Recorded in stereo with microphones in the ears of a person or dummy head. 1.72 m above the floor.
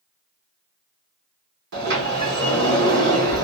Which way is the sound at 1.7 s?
55° right (ahead or behind).